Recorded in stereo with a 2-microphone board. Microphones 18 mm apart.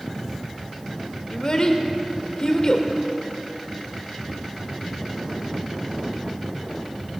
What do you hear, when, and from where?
1.3 s a child speaking: 45° left (ahead or behind), 1.1 m